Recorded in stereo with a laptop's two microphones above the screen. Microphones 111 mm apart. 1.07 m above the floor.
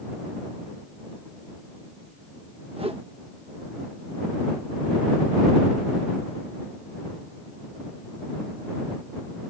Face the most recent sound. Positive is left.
turn(degrees=-60)  # may be behind; listen again after turning